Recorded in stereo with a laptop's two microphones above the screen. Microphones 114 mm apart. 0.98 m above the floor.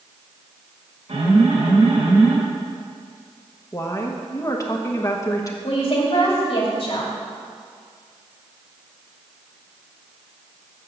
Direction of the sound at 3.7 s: 30° left (ahead or behind).